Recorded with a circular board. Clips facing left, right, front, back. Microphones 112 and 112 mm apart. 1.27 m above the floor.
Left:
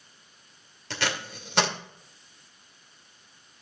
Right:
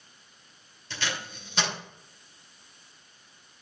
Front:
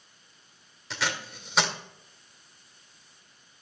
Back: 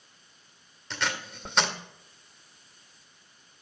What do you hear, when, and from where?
0.9 s tape being pulled: 85° left, 1.9 m